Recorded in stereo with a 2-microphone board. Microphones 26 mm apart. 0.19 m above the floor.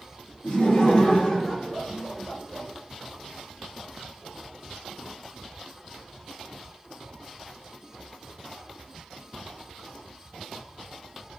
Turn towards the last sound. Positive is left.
turn(degrees=-25)  # may be behind; listen again after turning